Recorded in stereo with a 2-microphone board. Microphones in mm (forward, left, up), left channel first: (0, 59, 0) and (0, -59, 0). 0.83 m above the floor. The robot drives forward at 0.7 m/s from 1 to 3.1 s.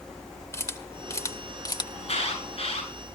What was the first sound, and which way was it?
A camera shutter, 25° left (ahead or behind).